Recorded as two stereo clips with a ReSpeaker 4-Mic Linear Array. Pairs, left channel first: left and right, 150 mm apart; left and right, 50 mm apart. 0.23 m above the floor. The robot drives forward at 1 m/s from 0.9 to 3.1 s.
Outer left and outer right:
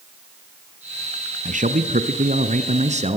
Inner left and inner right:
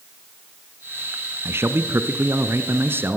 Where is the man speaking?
55° right (ahead or behind), 2 m; by 3.2 s 45° right (ahead or behind), 2.5 m.